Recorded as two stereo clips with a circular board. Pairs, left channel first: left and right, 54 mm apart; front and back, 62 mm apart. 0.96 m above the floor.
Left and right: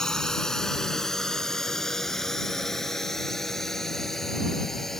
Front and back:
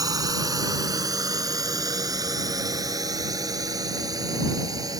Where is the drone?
170° left; by 5.0 s 175° left.